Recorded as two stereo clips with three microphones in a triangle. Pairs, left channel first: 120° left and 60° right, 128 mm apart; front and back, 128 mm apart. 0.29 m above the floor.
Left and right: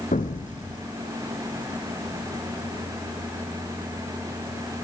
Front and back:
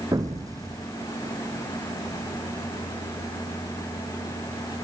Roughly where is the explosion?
Behind left.